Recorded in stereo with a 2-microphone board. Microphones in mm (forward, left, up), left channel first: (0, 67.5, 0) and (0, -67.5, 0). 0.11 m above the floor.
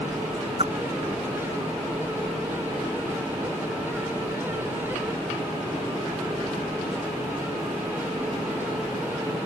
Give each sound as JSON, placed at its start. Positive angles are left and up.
{"t": 0.6, "sound": "a whoosh", "side_deg": -45}